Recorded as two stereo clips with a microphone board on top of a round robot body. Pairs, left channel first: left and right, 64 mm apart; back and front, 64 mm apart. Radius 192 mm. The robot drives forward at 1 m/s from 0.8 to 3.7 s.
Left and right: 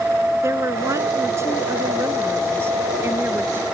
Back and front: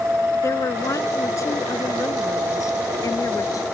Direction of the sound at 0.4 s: 135° right.